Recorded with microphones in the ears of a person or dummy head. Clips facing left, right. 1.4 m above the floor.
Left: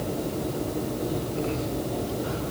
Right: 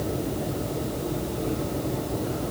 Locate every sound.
Only background noise.